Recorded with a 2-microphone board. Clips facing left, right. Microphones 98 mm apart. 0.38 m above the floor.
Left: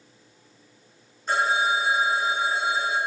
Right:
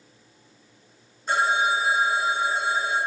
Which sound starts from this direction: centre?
A phone ringing, at 1.3 s.